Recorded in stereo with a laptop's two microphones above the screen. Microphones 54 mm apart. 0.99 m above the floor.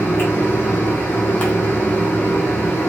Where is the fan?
40° left (ahead or behind), 0.7 m.